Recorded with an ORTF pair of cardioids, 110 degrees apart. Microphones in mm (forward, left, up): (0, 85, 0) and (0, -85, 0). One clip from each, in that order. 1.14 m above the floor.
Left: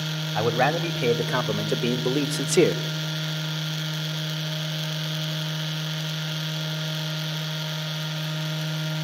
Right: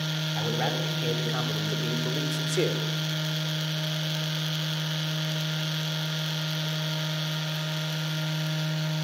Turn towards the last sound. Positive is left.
turn(degrees=60)